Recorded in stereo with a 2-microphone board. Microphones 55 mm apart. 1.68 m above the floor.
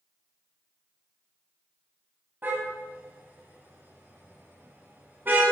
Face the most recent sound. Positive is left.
turn(degrees=-35)  # may be behind; listen again after turning